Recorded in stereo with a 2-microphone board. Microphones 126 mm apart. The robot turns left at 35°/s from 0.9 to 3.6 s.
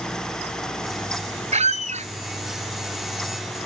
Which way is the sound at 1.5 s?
70° right (ahead or behind).